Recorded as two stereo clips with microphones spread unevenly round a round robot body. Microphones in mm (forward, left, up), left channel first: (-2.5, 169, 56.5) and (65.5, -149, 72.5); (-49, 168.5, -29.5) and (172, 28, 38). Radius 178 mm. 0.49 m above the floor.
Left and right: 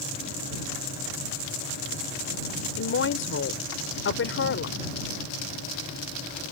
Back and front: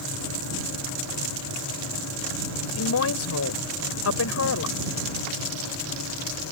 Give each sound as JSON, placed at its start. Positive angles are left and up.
{"t": 2.8, "sound": "a woman speaking", "azimuth_deg": 150}